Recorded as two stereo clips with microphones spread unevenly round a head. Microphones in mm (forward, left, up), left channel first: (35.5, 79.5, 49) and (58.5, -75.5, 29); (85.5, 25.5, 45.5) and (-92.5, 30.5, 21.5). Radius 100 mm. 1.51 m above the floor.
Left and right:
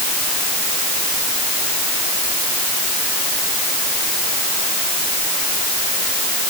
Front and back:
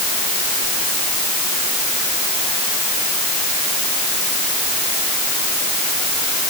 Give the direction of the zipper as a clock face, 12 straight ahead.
I don't hear a zipper.